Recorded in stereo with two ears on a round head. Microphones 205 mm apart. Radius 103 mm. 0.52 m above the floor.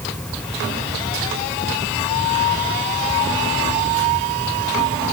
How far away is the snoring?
I don't hear snoring.